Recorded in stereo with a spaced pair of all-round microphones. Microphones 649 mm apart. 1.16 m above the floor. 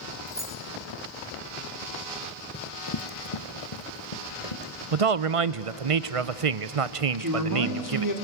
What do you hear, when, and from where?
0.3 s keys jangling: 5° left (ahead or behind), 3 m
2.5 s running footsteps: 15° left (ahead or behind), 1.2 m; by 4.7 s 60° left (ahead or behind), 3.5 m
4.9 s a man speaking: 55° right (ahead or behind), 0.8 m
7.2 s a man speaking: 30° right (ahead or behind), 3 m